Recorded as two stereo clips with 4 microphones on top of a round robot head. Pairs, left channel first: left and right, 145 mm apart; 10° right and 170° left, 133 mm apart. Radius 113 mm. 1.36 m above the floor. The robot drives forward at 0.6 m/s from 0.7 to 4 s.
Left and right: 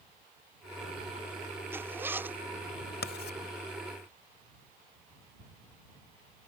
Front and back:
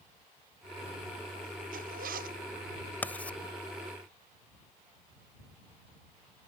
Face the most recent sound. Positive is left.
turn(degrees=75)